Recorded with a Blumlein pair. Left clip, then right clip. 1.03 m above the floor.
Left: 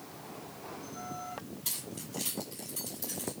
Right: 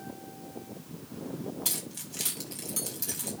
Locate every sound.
1.6 s keys jangling: 60° right, 5.5 m